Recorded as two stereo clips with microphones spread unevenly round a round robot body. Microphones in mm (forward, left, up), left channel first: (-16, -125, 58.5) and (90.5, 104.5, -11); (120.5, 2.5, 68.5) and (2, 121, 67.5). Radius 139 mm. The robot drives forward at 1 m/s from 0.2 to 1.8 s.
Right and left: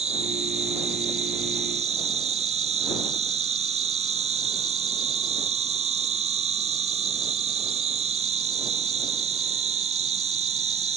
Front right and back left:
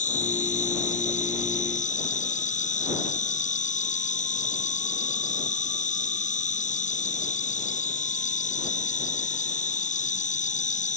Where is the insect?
Straight ahead.